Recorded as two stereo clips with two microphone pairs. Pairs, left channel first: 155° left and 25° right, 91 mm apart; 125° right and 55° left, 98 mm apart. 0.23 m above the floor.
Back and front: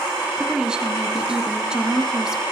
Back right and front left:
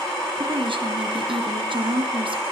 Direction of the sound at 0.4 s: 55° left.